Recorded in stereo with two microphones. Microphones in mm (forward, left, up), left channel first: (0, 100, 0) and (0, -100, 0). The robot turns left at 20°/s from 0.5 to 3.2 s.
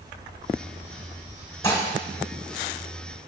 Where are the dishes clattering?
15° left (ahead or behind), 1.3 m; by 1.9 s 20° left (ahead or behind), 1.3 m.